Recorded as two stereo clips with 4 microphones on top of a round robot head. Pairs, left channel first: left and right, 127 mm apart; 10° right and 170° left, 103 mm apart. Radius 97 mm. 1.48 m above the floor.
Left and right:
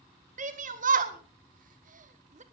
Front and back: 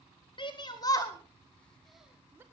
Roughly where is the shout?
Ahead right.